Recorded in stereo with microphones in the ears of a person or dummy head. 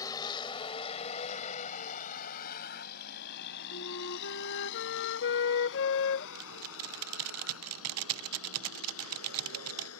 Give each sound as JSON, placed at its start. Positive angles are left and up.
{"t": 0.0, "sound": "a vehicle", "side_deg": 20}
{"t": 3.7, "sound": "a flute", "side_deg": 70}
{"t": 6.3, "sound": "typing on a keyboard", "side_deg": -80}